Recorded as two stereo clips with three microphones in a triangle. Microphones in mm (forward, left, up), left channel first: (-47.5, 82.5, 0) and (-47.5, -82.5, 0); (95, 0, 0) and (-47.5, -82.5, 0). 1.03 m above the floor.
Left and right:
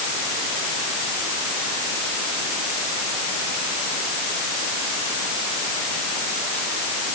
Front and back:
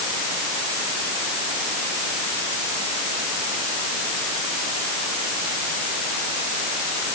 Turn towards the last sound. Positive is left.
No sound to turn to.